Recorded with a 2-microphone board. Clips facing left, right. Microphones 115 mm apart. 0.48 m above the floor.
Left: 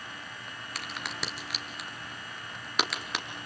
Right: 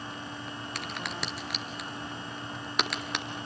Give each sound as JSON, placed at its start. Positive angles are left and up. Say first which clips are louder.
{"t": 0.8, "sound": "a crack", "louder": "even", "side_deg": 0, "distance_m": 2.5}